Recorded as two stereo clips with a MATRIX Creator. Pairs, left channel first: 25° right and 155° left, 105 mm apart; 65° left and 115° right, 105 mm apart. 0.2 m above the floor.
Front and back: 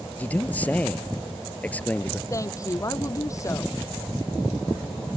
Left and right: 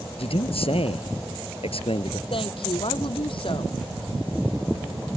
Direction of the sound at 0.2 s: 50° left.